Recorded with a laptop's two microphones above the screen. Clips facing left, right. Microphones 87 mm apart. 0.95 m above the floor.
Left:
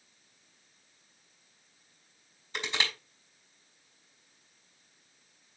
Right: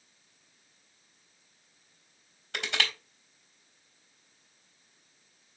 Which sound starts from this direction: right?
Crushing, at 2.5 s.